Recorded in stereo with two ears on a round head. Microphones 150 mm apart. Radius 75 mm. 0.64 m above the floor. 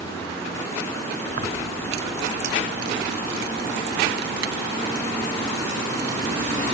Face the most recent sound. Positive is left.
turn(degrees=-75)  # may be behind; listen again after turning